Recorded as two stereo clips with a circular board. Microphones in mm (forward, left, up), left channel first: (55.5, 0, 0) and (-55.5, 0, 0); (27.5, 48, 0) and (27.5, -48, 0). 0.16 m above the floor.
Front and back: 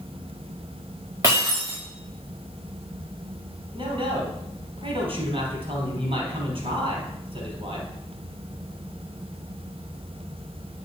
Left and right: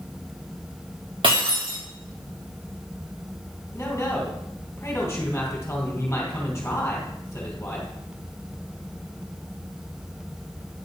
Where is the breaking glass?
115° right, 4 m.